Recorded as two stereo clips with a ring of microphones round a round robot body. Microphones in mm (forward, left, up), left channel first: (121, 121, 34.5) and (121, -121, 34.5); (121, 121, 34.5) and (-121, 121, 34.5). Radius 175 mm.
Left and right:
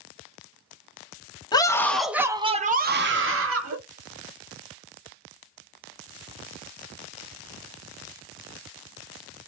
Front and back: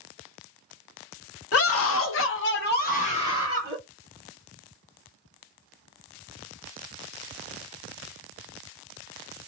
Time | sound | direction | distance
1.5 | a scream | 15° left | 0.9 m